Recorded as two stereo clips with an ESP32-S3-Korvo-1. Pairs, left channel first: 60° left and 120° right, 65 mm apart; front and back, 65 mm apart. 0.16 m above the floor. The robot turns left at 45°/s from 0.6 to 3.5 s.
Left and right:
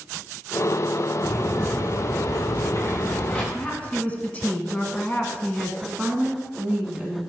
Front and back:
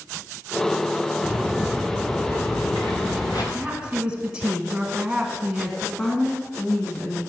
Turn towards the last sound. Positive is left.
turn(degrees=-60)